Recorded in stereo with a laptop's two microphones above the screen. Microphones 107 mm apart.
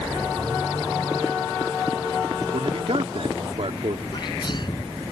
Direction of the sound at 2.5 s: 65° right (ahead or behind).